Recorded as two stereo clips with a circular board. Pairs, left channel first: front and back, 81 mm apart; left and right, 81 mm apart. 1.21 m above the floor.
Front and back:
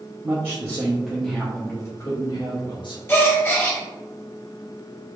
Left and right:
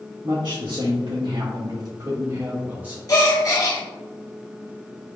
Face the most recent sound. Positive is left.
turn(degrees=55)